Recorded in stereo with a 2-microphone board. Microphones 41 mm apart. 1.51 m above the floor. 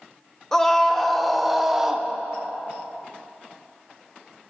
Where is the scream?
10° left (ahead or behind), 1.6 m; by 2.1 s 15° right (ahead or behind), 1.1 m.